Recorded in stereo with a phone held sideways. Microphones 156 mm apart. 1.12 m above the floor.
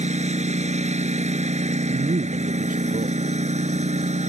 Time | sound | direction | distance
0.0 | a lawn mower | 45° right (ahead or behind) | ?
1.9 | a man speaking | 55° right (ahead or behind) | ?